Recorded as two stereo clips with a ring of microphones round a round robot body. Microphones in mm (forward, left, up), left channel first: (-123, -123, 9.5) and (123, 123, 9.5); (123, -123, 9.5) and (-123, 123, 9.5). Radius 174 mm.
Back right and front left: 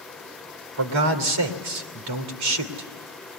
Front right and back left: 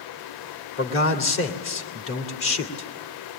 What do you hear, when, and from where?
0.8 s a man speaking: 5° left, 2.5 m